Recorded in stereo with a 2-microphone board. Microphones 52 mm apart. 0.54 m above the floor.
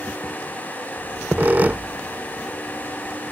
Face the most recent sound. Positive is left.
turn(degrees=-35)  # may be behind; listen again after turning